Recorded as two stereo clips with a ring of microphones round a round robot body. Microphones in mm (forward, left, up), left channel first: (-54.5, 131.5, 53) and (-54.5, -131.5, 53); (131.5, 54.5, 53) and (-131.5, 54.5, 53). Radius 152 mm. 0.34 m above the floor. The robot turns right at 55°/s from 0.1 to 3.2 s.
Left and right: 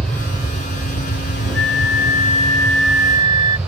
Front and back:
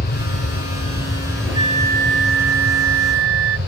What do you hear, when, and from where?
0.0 s an aircraft: 5° left; by 3.7 s 175° right
1.5 s a flute: 110° left; by 3.6 s 160° right